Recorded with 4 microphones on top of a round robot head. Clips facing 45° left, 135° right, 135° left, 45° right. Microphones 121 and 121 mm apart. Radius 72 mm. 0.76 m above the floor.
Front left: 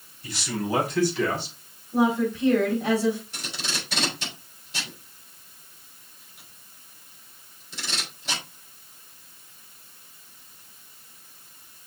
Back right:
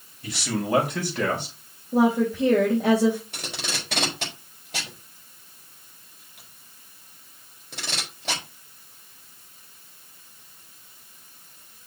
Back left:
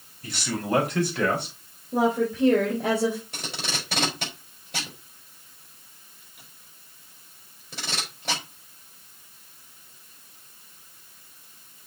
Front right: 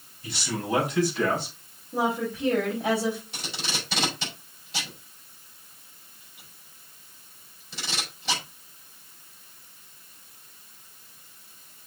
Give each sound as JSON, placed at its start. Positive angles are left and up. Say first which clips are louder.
{"t": 0.2, "sound": "a man speaking", "louder": "back right 2 dB, back left 2 dB", "azimuth_deg": -175, "distance_m": 4.5}
{"t": 1.9, "sound": "a woman speaking", "louder": "back right 2 dB, back left 4 dB", "azimuth_deg": 180, "distance_m": 3.5}
{"t": 3.3, "sound": "tape being pulled", "louder": "back right 1 dB, back left 1 dB", "azimuth_deg": -175, "distance_m": 4.5}